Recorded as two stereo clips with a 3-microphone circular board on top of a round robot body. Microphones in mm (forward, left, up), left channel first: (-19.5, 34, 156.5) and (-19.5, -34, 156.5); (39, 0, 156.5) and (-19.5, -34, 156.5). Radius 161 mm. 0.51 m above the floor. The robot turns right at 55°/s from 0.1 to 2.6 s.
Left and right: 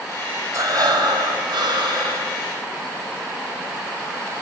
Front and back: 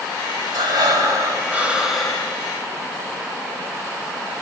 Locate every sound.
0.5 s breathing: 135° right, 1.7 m; by 2.3 s 40° right, 1.7 m